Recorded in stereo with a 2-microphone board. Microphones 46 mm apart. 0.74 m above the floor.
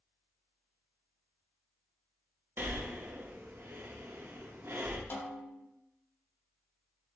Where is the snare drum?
55° left (ahead or behind), 0.9 m.